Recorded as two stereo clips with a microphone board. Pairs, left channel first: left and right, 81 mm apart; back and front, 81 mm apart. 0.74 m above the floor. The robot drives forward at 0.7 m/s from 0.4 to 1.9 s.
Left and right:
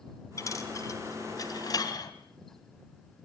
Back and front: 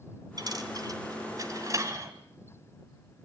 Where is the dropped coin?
40° left, 3.5 m; by 2.1 s 50° left, 2.5 m.